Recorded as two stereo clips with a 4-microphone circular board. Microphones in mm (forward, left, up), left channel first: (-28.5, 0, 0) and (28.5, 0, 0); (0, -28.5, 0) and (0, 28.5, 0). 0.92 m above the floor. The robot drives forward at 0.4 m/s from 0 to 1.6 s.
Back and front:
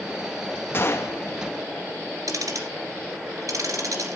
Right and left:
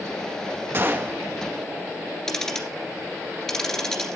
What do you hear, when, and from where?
0.7 s a gunshot: 135° left, 1.0 m; by 1.2 s 145° left, 1.2 m
2.3 s ticking: 5° right, 2 m